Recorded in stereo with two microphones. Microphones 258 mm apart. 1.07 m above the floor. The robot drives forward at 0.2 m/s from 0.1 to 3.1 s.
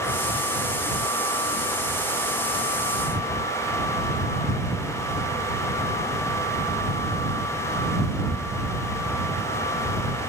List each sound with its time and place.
Only background noise.